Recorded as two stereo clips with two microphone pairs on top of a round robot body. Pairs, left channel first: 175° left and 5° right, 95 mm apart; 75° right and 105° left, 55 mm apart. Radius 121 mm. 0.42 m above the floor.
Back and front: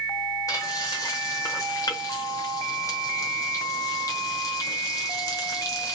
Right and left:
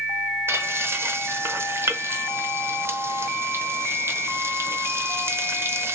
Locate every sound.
0.5 s frying: 115° left, 0.9 m